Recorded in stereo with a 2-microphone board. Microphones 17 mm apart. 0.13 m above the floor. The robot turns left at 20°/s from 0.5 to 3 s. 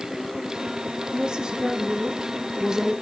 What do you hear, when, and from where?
1.1 s a woman speaking: 125° right, 4 m; by 2.9 s 160° right, 4 m